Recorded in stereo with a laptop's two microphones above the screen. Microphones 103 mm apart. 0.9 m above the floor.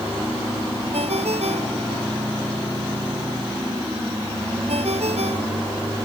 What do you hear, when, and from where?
0.9 s a ringtone: 85° right